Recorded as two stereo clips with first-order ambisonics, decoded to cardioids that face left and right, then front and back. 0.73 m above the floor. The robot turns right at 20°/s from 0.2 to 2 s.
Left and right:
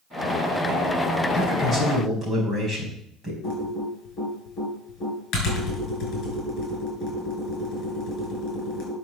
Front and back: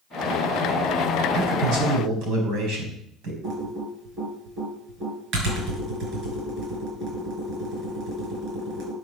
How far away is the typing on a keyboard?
About 6 m.